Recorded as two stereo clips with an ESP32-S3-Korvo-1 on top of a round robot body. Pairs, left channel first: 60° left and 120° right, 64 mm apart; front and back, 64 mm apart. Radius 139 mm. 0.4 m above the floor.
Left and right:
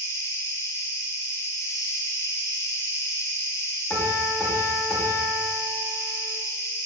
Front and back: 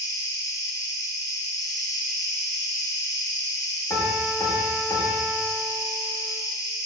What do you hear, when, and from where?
0.0 s an insect: 20° left, 0.8 m
3.9 s a piano: 15° right, 0.8 m